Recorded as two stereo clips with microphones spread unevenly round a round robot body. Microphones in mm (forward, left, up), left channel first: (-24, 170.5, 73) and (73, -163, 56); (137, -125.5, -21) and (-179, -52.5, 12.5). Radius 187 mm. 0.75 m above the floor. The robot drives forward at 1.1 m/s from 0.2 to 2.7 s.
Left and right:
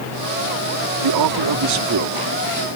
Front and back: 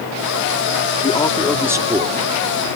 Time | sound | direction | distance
1.0 | a man speaking | 80° right | ?